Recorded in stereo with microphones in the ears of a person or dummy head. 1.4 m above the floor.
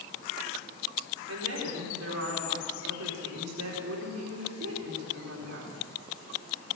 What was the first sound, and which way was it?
A woman speaking, 70° right (ahead or behind).